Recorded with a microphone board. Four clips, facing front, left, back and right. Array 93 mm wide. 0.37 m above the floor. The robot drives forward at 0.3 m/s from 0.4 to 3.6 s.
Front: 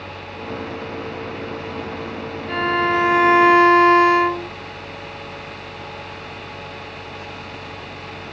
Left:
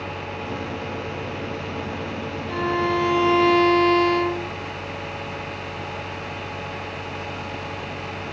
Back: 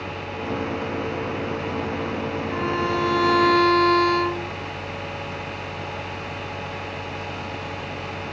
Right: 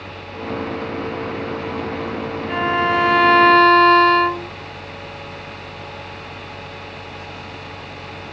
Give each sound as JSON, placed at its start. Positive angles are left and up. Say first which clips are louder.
{"t": 2.5, "sound": "a violin", "louder": "right 4 dB, front 7 dB", "azimuth_deg": -50, "distance_m": 0.9}